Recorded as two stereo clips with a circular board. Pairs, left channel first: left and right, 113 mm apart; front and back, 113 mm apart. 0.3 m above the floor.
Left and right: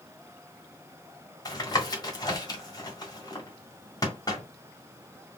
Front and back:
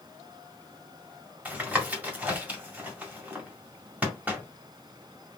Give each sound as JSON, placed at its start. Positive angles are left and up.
{"t": 1.4, "sound": "tapping", "azimuth_deg": 115, "distance_m": 1.5}